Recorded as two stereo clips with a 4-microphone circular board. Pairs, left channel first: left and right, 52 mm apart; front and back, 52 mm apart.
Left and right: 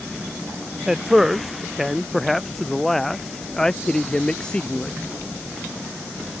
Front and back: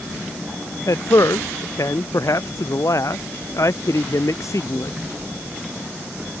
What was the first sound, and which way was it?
A man speaking, 10° right.